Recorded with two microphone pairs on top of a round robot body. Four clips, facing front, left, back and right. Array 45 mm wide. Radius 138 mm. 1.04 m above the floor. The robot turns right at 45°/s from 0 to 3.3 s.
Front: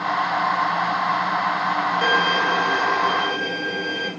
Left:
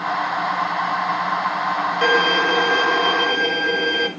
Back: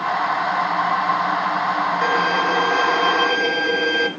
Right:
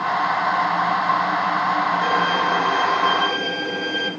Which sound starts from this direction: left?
A violin, at 2.0 s.